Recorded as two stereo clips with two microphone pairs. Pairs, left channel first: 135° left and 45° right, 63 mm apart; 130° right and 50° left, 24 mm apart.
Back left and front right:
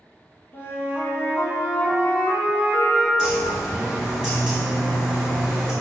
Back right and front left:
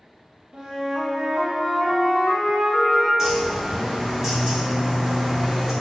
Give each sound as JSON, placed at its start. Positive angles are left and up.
{"t": 0.5, "sound": "a flute", "azimuth_deg": 100, "distance_m": 0.5}
{"t": 3.2, "sound": "a bird", "azimuth_deg": 25, "distance_m": 0.8}